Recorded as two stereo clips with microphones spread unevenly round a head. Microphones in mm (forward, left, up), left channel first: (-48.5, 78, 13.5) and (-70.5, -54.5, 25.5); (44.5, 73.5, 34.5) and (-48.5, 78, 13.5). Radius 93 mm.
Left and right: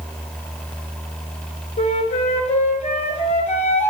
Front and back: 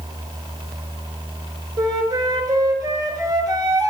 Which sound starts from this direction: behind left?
A flute, at 1.8 s.